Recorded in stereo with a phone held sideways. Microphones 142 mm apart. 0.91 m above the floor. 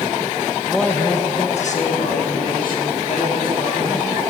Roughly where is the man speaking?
Centre.